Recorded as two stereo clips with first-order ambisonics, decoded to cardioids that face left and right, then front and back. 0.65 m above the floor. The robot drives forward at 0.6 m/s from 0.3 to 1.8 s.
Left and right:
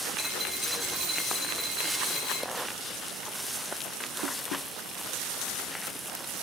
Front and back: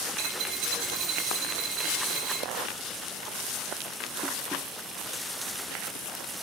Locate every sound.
0.2 s a dropped coin: 170° right, 5.5 m